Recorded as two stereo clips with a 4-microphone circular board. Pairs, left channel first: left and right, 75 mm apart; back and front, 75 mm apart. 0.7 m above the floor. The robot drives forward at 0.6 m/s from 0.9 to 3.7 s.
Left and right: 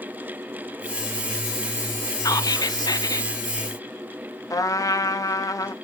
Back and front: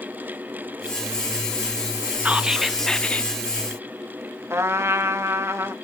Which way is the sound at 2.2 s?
65° left.